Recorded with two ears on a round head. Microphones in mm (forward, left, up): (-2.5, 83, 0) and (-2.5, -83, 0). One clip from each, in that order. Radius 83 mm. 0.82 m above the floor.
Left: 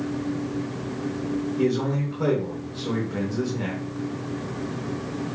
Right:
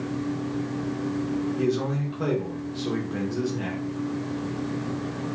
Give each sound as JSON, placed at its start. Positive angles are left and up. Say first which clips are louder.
{"t": 1.6, "sound": "a man speaking", "louder": "left 3 dB", "side_deg": -5, "distance_m": 0.6}